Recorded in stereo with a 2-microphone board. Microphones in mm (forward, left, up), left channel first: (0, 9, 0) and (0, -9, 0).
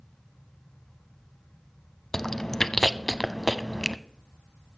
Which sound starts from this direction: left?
Chewing, at 2.1 s.